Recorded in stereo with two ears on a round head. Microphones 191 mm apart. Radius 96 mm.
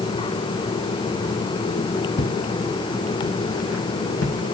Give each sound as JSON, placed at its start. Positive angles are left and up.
{"t": 2.2, "sound": "footsteps", "side_deg": 60, "distance_m": 1.8}